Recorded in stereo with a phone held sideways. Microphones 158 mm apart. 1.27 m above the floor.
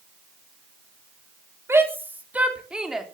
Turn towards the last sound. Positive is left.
turn(degrees=0)  # may be behind; listen again after turning